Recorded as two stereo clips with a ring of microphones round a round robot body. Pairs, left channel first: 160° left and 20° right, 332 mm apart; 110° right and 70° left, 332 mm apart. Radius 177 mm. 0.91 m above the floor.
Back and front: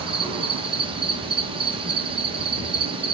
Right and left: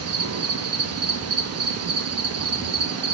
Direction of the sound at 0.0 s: 45° left.